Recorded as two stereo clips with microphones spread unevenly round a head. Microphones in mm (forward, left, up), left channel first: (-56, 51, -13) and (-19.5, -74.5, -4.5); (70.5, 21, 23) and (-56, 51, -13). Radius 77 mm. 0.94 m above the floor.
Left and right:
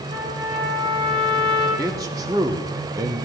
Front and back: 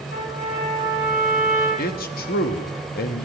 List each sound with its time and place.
0.1 s a trumpet: 15° right, 5.5 m
1.8 s a man speaking: 5° right, 1.5 m